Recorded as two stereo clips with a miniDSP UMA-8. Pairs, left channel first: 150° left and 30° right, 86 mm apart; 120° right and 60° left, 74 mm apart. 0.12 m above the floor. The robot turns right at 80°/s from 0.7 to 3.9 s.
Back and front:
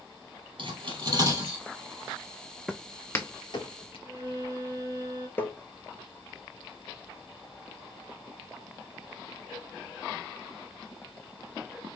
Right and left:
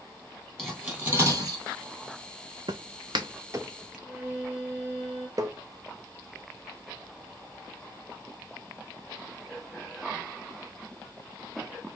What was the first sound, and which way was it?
Cutlery clinking, 35° right.